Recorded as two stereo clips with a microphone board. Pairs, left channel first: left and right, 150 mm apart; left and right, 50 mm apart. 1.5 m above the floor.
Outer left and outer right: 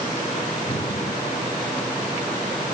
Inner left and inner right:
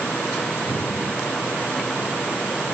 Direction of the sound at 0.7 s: 45° left (ahead or behind).